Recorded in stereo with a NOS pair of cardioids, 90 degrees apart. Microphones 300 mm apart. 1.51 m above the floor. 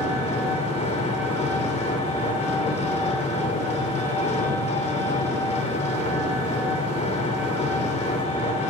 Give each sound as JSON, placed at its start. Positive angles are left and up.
{"t": 0.0, "sound": "an engine running", "azimuth_deg": 20, "distance_m": 3.0}